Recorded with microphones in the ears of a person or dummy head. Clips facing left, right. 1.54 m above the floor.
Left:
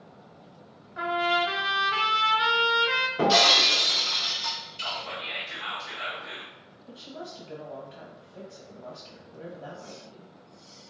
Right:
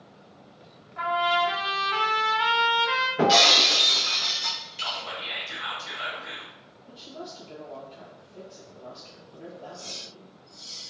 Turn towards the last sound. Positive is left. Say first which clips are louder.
# even
turn(degrees=20)  # may be behind; listen again after turning